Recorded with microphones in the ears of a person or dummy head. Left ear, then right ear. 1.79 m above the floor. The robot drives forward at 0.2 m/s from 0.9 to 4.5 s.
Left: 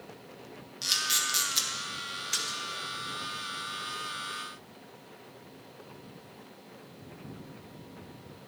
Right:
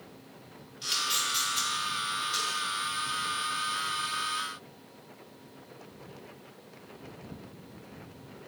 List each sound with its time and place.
0.8 s a camera shutter: 15° left (ahead or behind), 0.9 m; by 1.7 s 20° left (ahead or behind), 0.8 m
2.3 s a splash: 80° left, 1.7 m; by 2.6 s 85° left, 1.7 m